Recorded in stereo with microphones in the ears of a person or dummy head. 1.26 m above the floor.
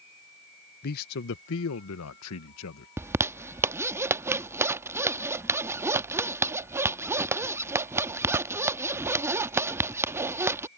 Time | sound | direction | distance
0.8 | a man speaking | 50° left (ahead or behind) | ?
3.0 | a zipper | 10° right (ahead or behind) | ?